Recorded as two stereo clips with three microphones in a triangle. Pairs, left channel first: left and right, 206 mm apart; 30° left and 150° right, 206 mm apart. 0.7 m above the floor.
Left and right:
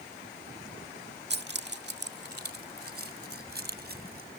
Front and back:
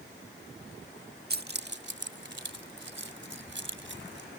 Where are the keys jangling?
115° right; by 4.3 s 130° right.